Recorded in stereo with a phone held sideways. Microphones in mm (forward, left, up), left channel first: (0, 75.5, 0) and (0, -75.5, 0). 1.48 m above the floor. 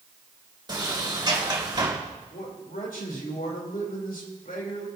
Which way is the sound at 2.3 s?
80° left.